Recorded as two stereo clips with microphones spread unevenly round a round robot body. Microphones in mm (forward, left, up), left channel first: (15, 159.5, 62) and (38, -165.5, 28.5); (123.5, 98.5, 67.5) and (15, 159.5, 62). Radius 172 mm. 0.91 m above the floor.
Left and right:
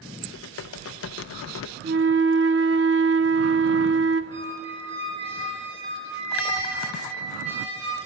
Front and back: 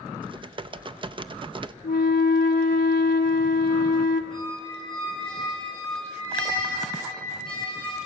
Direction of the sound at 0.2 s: 130° left.